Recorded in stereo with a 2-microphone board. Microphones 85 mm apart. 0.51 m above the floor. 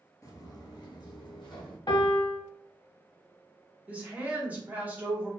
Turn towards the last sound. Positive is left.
turn(degrees=-20)  # may be behind; listen again after turning